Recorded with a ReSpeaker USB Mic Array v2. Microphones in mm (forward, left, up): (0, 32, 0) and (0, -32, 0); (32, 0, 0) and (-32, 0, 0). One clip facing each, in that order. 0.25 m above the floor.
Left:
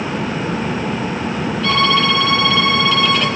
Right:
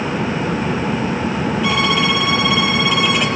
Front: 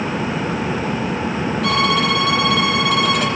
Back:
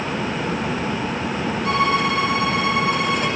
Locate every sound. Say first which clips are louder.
1.6 s a violin: left 3 dB, front 1 dB; 15° right, 5.5 m